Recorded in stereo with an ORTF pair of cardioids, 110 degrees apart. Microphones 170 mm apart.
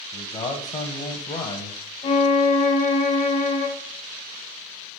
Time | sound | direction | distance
0.1 | a man speaking | 40° left | 1.0 m
2.0 | a violin | 40° left | 0.9 m